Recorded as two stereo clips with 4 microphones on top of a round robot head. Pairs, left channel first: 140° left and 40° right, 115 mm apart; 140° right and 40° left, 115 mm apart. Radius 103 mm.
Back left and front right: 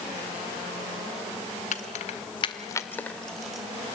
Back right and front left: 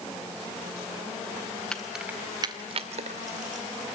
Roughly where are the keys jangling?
Behind left.